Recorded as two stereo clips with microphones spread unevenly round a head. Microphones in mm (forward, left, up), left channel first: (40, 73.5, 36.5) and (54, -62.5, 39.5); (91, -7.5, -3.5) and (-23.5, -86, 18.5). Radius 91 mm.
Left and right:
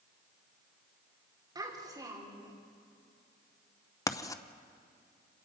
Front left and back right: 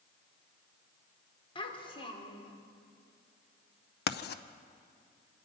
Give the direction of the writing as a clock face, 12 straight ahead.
11 o'clock.